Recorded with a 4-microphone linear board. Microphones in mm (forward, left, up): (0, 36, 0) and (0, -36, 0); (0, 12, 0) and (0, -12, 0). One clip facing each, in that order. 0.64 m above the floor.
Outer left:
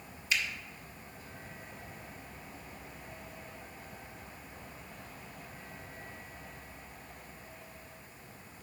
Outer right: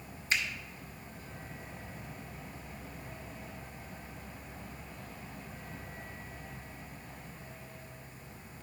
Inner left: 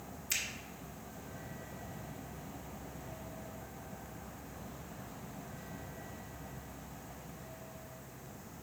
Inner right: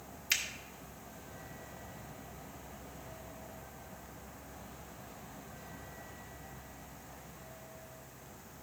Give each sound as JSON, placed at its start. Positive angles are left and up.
{"t": 0.3, "sound": "a finger snap", "side_deg": -40, "distance_m": 1.3}